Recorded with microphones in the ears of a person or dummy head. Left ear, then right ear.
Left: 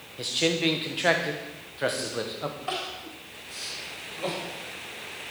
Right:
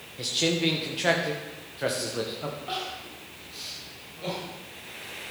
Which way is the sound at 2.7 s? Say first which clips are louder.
Left 1 dB; 40° left (ahead or behind).